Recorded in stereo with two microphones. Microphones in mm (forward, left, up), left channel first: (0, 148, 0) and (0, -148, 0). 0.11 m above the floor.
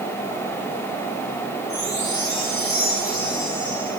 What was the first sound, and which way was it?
A chime, 65° left (ahead or behind).